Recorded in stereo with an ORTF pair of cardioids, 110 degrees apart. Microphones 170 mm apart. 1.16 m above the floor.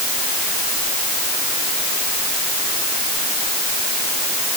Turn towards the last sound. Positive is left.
No sound to turn to.